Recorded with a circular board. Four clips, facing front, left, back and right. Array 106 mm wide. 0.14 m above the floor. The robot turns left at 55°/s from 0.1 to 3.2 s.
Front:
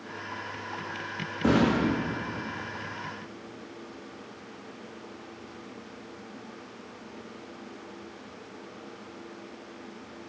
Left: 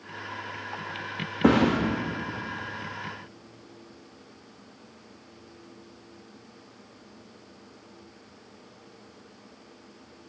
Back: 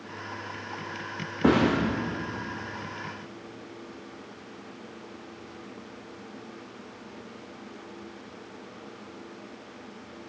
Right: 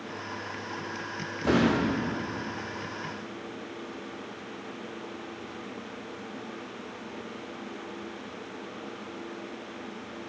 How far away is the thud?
About 5 m.